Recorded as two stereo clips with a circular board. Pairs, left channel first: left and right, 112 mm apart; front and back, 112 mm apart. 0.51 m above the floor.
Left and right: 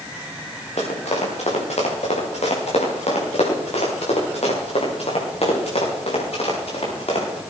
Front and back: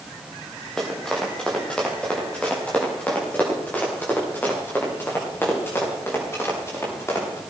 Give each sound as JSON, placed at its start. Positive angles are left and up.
{"t": 0.8, "sound": "running footsteps", "azimuth_deg": 85, "distance_m": 4.5}